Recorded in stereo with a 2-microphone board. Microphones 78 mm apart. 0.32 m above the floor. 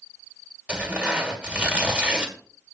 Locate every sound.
0.7 s tearing paper: 20° right (ahead or behind), 1.6 m